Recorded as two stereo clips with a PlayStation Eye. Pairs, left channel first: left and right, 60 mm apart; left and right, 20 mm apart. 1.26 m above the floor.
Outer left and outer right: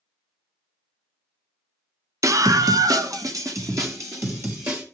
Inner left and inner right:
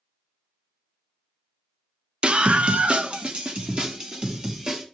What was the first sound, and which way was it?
A scream, 60° right (ahead or behind).